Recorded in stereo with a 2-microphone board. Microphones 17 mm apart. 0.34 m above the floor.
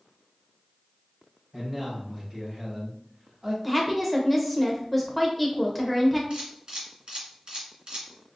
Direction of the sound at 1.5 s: 15° right (ahead or behind).